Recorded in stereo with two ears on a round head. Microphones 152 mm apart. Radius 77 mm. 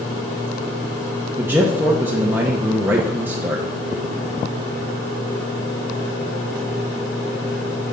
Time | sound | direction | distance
1.4 | a man speaking | 10° right (ahead or behind) | 0.7 m